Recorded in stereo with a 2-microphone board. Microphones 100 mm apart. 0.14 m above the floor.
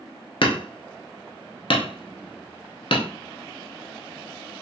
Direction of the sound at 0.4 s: 60° left (ahead or behind).